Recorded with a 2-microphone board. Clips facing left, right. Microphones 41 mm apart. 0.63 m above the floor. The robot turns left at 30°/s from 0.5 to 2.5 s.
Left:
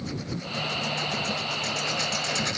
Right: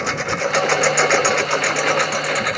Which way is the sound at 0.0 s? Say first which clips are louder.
Right 13 dB; 80° right.